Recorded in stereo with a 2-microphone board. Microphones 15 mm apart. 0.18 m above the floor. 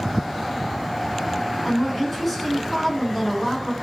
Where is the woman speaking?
10° left (ahead or behind), 2.0 m.